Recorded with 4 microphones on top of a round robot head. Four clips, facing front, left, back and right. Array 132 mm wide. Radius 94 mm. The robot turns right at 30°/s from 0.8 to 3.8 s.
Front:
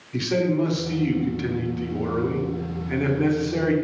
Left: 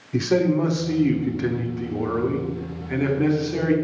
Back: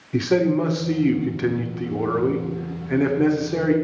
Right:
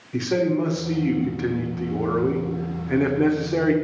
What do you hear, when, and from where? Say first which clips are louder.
0.1 s a man speaking: left 2 dB, back 3 dB; 160° left, 1.2 m; by 3.8 s 110° right, 1.2 m